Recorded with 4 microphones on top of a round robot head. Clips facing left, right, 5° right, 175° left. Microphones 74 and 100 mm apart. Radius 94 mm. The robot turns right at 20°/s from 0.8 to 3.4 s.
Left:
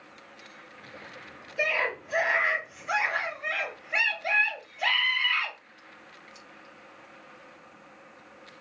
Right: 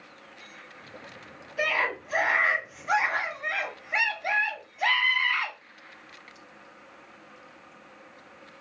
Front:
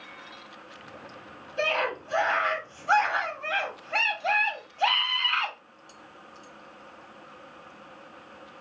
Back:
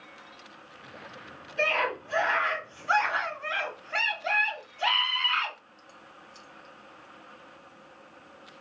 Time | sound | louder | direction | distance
1.6 | a scream | right 1 dB, even | 55° right | 2 m